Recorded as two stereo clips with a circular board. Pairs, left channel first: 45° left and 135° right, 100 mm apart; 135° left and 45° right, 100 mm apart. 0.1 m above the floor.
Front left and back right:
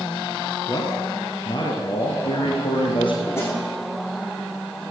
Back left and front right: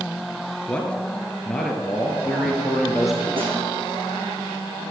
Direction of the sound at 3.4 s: 20° right.